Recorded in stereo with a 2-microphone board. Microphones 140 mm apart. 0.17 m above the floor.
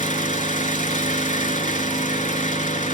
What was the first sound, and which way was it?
An engine running, 65° left (ahead or behind).